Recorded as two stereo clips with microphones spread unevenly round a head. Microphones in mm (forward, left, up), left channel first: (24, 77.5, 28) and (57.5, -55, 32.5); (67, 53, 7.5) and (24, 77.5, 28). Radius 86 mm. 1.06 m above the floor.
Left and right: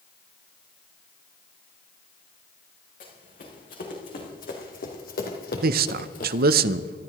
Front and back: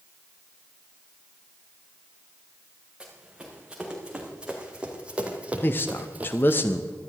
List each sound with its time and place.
3.0 s running footsteps: 80° left, 5 m; by 6.6 s 150° left, 1.6 m
5.6 s a man speaking: 80° right, 0.6 m